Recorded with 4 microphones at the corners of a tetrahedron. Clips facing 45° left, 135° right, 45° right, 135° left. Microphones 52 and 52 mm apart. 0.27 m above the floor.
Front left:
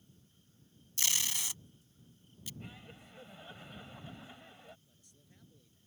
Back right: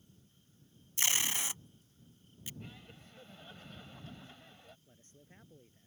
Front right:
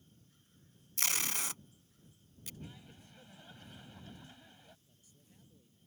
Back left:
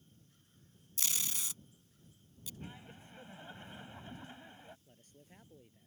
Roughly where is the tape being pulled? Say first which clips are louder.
Back right 2 dB, front right 5 dB; right.